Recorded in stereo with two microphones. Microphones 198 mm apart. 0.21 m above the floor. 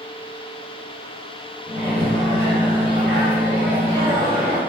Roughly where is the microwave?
Centre.